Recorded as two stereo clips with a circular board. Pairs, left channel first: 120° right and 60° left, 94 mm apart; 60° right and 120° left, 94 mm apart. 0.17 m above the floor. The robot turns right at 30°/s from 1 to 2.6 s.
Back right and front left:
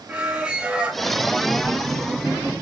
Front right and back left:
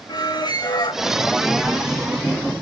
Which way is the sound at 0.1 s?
20° right.